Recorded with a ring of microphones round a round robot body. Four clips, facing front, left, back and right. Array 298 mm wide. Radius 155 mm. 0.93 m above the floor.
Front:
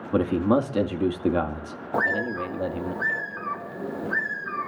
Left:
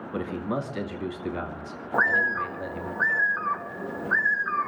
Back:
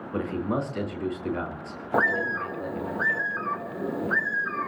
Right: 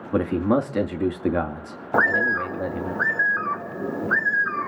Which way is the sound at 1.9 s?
110° right.